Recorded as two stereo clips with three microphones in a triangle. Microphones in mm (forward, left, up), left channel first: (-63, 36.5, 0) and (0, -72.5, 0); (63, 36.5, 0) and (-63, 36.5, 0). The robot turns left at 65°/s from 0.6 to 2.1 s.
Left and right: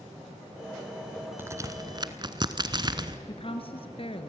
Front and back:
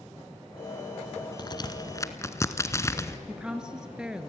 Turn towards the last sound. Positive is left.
turn(degrees=95)